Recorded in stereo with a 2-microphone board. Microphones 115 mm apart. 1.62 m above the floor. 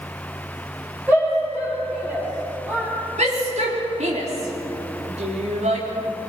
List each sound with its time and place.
1.1 s a shout: 15° right (ahead or behind), 4.5 m; by 2.9 s 20° right (ahead or behind), 3.5 m
3.2 s a shout: 85° right, 3.5 m